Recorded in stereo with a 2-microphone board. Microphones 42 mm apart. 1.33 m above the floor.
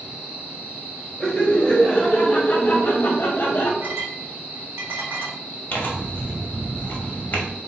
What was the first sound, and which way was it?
Laughter, 5° left (ahead or behind).